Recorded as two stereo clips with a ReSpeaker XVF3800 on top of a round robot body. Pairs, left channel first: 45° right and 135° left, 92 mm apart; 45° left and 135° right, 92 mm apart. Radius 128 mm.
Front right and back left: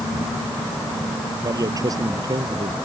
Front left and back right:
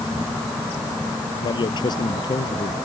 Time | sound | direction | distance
1.4 | a man speaking | 80° left | ?